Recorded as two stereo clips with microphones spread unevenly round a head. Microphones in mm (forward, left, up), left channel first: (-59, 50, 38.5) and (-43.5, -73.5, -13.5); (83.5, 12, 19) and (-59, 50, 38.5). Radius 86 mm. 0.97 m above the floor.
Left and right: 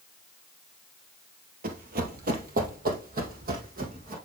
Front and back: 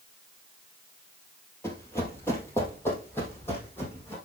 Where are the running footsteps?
95° right, 1.6 m.